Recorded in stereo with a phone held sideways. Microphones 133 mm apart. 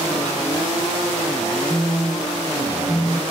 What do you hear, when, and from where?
1.7 s a phone buzzing: 15° left (ahead or behind)